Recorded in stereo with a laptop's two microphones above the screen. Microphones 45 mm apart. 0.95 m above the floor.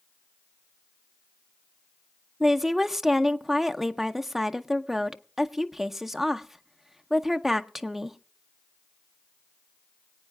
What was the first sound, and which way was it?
A woman speaking, 5° right (ahead or behind).